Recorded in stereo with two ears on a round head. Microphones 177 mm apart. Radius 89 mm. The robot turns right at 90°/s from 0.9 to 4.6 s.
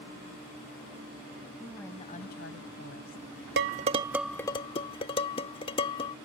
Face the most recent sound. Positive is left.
turn(degrees=30)  # may be behind; listen again after turning